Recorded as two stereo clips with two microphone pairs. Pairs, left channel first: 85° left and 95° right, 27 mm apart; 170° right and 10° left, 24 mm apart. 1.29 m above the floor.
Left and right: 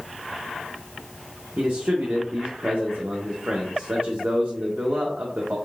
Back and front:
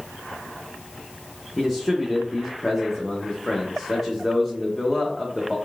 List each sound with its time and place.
1.6 s a man speaking: 95° right, 0.6 m